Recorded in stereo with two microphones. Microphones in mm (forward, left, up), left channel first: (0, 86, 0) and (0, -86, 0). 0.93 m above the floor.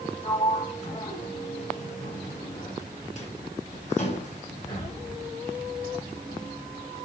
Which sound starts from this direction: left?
A sliding door, at 0.2 s.